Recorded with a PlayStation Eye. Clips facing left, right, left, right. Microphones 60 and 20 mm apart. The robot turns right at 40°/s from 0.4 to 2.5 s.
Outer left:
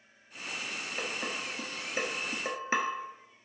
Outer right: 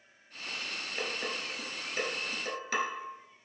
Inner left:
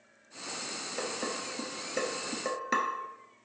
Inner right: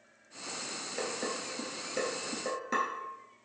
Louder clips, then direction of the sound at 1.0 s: Even, even; 5° right (ahead or behind).